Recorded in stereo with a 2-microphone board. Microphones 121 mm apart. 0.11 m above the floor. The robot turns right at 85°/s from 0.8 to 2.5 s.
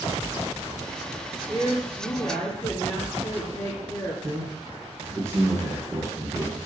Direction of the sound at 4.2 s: 20° right (ahead or behind).